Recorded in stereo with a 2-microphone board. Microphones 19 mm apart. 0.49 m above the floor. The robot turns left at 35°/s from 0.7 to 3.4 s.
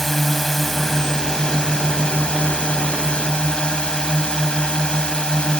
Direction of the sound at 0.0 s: 160° left.